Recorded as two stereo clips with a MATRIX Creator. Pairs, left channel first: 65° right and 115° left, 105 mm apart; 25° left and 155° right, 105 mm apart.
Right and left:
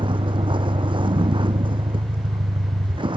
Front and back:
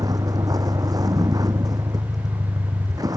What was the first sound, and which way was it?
A vehicle, 150° left.